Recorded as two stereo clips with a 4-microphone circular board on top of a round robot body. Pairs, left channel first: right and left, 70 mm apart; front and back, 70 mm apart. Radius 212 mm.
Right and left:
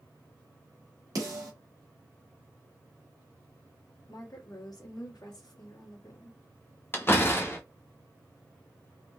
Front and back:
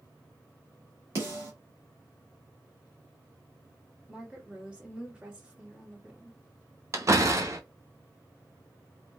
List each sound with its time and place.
1.1 s a snare drum: 130° left, 1.1 m
4.1 s a woman speaking: 105° right, 1.6 m
6.9 s a door slam: 140° right, 1.0 m